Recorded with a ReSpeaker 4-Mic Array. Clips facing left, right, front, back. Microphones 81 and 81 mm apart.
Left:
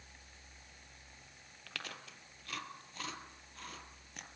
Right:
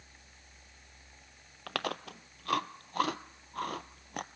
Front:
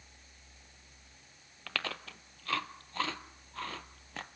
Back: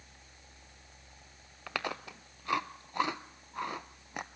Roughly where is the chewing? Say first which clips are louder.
Right 12 dB, back 3 dB; right.